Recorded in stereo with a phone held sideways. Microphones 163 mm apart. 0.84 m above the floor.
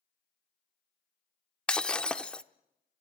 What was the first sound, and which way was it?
Breaking glass, 5° left (ahead or behind).